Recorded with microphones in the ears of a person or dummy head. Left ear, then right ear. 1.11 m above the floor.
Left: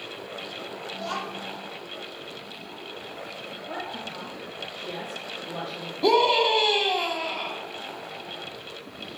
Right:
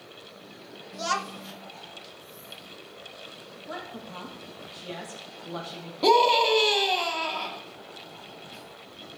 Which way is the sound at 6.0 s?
40° right (ahead or behind).